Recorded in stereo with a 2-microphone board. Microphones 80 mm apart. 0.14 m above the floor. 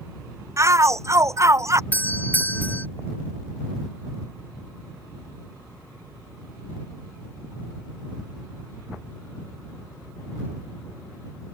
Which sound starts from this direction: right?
A shout, at 0.6 s.